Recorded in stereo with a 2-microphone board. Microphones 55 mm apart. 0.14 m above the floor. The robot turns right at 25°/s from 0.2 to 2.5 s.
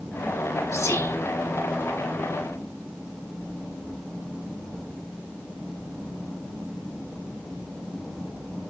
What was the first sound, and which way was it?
Whispering, 65° left (ahead or behind).